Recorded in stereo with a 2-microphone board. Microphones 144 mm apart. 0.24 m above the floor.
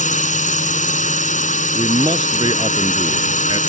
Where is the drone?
60° left (ahead or behind).